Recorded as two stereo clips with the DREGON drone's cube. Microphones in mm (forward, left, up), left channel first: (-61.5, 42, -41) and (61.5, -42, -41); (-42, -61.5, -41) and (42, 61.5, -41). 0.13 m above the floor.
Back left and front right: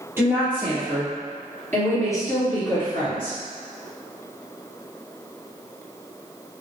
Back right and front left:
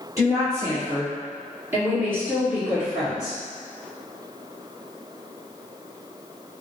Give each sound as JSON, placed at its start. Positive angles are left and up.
{"t": 0.2, "sound": "a woman speaking", "azimuth_deg": 20, "distance_m": 1.6}